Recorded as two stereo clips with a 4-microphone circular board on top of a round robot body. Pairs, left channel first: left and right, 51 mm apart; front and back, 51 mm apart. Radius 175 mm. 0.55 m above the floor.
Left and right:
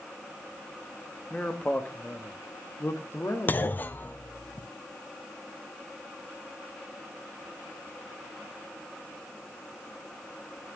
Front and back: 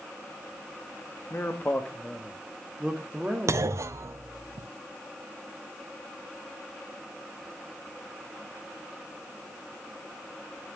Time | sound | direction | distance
1.3 | a man speaking | 25° left | 1.8 m
3.5 | a clunk | 145° left | 0.5 m